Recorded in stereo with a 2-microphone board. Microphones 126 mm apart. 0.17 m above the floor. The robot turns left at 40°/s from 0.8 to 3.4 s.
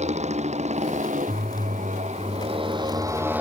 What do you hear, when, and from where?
0.0 s a motorcycle: 65° right; by 3.4 s 165° right